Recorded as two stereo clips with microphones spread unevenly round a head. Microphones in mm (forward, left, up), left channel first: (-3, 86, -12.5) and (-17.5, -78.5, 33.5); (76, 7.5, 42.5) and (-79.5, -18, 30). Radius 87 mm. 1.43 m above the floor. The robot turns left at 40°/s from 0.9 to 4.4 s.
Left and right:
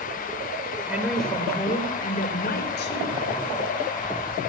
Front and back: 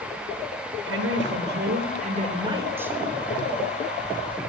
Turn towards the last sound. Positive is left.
turn(degrees=45)